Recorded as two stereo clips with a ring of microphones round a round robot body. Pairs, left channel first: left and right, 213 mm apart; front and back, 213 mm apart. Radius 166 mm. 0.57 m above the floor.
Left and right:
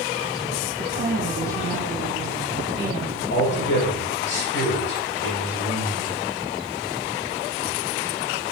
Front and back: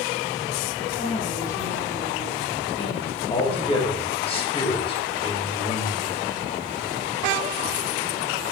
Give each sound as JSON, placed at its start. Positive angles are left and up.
{"t": 0.8, "sound": "a woman speaking", "azimuth_deg": -50, "distance_m": 2.5}
{"t": 3.3, "sound": "a man speaking", "azimuth_deg": 65, "distance_m": 2.5}